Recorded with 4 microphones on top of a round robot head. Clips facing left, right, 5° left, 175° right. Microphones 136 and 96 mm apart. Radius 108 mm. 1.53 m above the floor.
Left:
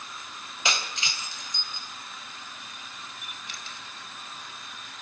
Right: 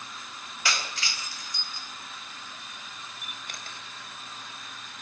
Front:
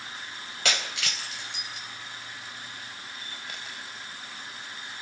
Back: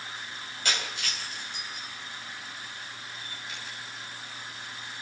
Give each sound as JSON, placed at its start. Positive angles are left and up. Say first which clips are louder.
{"t": 0.7, "sound": "breaking glass", "louder": "left 1 dB, front 2 dB", "azimuth_deg": 20, "distance_m": 3.5}
{"t": 3.2, "sound": "a camera shutter", "louder": "even, front 1 dB", "azimuth_deg": -50, "distance_m": 4.5}